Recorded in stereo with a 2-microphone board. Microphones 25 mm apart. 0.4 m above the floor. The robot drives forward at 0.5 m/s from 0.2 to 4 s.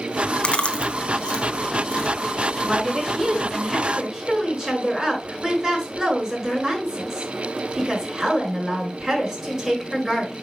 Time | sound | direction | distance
0.4 | chewing | 45° left (ahead or behind) | 1.0 m
2.6 | a woman speaking | 25° right (ahead or behind) | 6 m